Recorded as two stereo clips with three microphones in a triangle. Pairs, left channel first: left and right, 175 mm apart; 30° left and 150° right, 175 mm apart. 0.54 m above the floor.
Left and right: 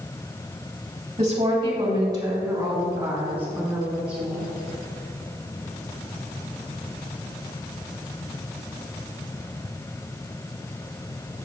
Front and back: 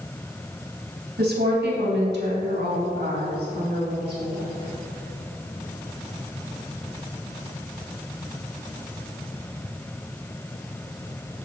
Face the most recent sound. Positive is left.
turn(degrees=-175)